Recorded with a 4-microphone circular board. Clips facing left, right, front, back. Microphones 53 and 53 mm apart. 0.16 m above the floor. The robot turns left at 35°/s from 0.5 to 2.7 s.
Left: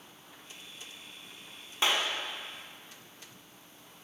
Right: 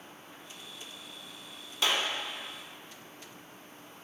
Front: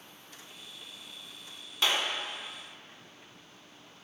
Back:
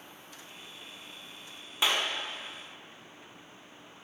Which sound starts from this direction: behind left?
A clap, at 1.8 s.